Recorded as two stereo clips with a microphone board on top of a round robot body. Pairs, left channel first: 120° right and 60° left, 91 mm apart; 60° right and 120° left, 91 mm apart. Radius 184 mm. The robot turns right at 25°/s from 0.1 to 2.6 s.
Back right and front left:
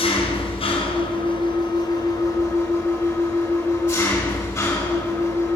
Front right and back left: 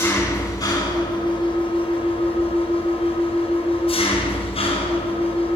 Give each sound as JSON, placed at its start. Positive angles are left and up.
{"t": 0.0, "sound": "an engine running", "azimuth_deg": -120, "distance_m": 3.5}